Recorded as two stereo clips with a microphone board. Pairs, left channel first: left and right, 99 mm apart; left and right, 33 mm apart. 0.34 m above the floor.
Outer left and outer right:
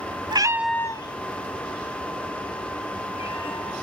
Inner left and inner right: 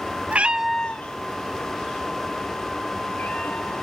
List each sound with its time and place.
0.3 s a cat meowing: 45° right (ahead or behind), 0.7 m; by 3.8 s 70° left (ahead or behind), 4.5 m